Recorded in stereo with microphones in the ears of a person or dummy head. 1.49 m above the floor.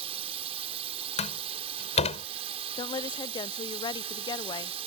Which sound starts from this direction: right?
A drone, at 0.0 s.